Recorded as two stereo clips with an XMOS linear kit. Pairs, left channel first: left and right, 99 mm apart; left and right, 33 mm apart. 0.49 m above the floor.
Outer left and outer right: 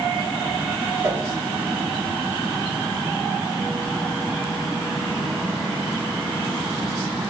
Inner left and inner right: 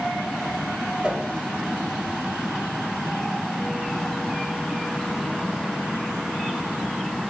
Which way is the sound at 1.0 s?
30° right (ahead or behind).